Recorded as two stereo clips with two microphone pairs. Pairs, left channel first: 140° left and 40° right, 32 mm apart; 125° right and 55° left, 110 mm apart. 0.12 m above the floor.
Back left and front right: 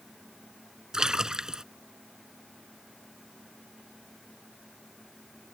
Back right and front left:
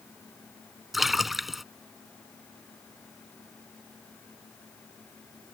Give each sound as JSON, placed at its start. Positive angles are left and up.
{"t": 0.9, "sound": "a splash", "azimuth_deg": -35}